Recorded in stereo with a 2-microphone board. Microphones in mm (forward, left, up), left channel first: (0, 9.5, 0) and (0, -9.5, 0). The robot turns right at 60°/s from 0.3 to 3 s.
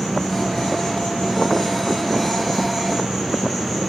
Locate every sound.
0.0 s an insect: 35° left, 2.5 m; by 3.9 s 160° right, 2.5 m